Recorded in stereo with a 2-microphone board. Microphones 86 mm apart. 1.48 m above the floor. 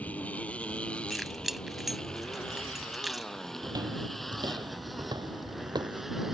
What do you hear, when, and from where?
0.0 s a motorcycle: 15° left (ahead or behind); by 6.3 s 5° right (ahead or behind)
1.1 s keys jangling: centre (ahead or behind)
3.6 s footsteps: 50° right (ahead or behind); by 6.0 s 60° right (ahead or behind)